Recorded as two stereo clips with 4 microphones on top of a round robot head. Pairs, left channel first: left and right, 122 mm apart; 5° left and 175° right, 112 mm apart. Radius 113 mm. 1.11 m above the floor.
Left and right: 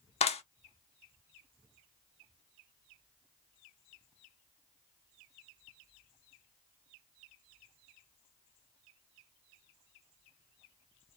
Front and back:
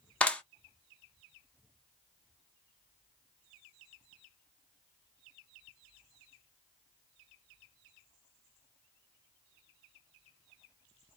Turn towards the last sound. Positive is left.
turn(degrees=80)